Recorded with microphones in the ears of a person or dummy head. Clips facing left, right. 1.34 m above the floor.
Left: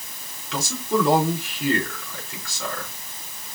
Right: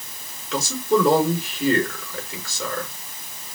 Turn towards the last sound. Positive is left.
turn(degrees=-75)  # may be behind; listen again after turning